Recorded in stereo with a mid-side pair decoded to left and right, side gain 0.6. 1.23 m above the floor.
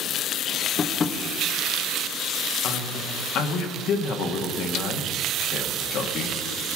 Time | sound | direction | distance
0.8 | tapping | 35° left | 1.2 m
2.6 | a man speaking | 60° left | 1.7 m